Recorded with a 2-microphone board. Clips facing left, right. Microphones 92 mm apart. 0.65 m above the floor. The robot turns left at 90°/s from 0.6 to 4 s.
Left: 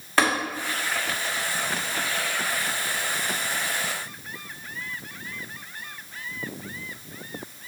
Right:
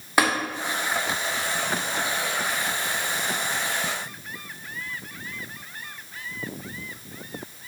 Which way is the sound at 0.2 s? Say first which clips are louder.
Even; 15° right (ahead or behind).